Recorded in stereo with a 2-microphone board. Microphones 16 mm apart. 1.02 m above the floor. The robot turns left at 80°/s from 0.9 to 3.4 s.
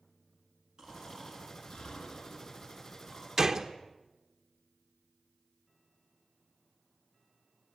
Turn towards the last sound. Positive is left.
turn(degrees=-20)  # may be behind; listen again after turning